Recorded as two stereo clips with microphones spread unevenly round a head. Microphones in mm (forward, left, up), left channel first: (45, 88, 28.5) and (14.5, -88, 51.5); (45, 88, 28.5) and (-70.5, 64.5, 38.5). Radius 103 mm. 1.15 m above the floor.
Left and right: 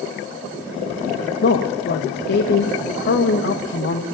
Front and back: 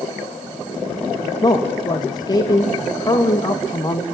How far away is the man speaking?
About 1.7 m.